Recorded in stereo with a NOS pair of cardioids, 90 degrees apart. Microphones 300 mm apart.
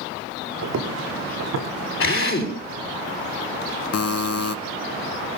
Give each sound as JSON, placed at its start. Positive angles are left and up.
{"t": 0.6, "sound": "footsteps", "azimuth_deg": -60, "distance_m": 4.5}
{"t": 2.0, "sound": "a drill", "azimuth_deg": 45, "distance_m": 5.5}
{"t": 3.9, "sound": "a buzzer", "azimuth_deg": 55, "distance_m": 1.0}